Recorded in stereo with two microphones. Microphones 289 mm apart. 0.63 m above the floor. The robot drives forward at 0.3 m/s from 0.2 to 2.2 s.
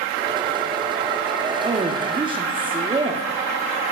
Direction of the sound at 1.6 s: 20° right (ahead or behind).